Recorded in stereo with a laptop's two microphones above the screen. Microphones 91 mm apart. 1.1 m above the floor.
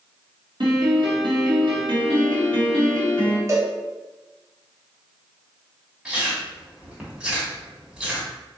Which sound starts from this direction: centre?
Chewing, at 6.0 s.